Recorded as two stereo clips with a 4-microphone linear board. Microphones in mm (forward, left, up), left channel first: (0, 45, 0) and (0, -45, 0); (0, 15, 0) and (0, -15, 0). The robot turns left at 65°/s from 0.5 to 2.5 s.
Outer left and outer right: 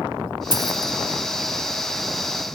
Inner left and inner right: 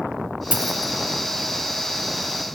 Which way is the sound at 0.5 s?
50° right (ahead or behind).